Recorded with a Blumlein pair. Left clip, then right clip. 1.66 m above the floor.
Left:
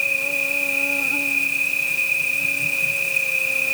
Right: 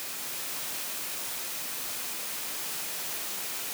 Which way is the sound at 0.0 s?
45° left.